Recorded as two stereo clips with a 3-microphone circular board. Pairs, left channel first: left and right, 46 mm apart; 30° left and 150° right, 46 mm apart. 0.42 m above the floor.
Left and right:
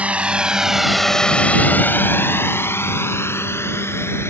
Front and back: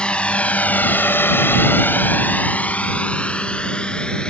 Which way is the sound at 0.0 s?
35° right.